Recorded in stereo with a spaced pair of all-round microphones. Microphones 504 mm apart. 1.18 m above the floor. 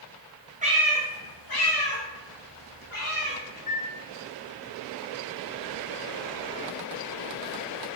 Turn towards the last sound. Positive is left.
turn(degrees=75)  # may be behind; listen again after turning